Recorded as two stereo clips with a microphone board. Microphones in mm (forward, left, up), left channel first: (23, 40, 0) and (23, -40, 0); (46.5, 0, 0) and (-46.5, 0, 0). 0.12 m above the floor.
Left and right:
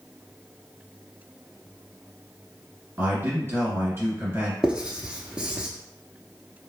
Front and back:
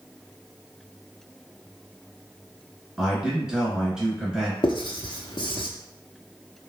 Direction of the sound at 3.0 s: 105° right.